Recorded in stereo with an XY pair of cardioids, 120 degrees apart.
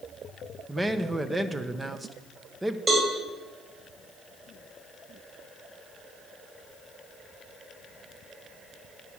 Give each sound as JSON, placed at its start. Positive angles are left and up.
{"t": 0.7, "sound": "a man speaking", "azimuth_deg": -15, "distance_m": 0.8}
{"t": 2.9, "sound": "a cowbell", "azimuth_deg": -30, "distance_m": 2.5}